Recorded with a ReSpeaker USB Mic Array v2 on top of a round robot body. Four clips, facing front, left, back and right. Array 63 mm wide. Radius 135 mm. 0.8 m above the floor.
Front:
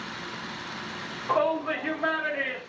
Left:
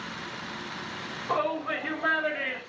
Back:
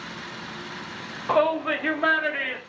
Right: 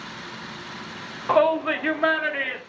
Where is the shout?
110° right, 2 m; by 2.6 s 115° right, 3.5 m.